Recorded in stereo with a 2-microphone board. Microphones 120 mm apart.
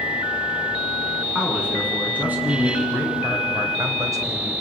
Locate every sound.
1.4 s a man speaking: 10° right (ahead or behind), 7 m; by 4.5 s 35° right (ahead or behind), 3.5 m